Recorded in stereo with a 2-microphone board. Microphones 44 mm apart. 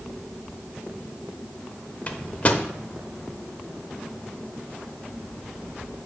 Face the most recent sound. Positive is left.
turn(degrees=35)  # may be behind; listen again after turning